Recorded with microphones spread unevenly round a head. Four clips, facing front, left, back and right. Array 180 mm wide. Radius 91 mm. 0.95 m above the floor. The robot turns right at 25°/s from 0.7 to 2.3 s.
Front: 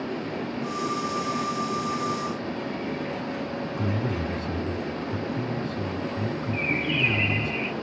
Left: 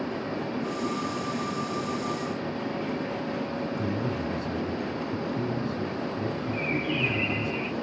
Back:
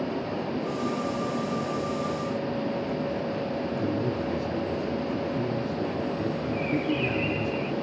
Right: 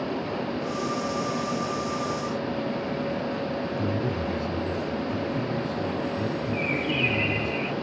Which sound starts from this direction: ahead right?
A bird, at 6.5 s.